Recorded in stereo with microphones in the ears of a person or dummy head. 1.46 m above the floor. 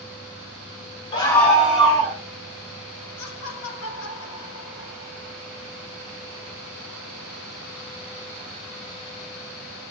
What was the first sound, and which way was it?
A scream, 25° left (ahead or behind).